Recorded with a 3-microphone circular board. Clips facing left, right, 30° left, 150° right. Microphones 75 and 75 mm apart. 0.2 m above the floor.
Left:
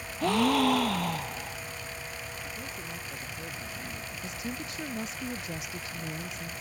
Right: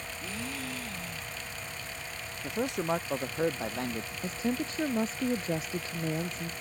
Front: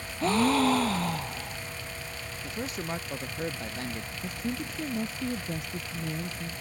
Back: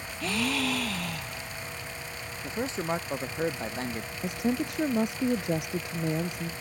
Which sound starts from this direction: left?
A gasp, at 0.2 s.